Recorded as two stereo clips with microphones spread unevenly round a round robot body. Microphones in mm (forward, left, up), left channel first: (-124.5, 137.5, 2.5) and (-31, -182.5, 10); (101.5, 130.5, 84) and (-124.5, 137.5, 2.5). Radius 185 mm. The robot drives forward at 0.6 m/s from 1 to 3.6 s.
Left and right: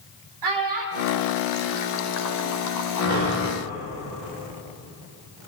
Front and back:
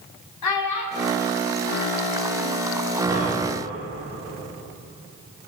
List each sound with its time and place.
0.4 s a child speaking: 30° right, 1.4 m; by 2.6 s 70° right, 0.7 m
3.0 s breathing: 110° right, 1.9 m; by 3.5 s 120° right, 2 m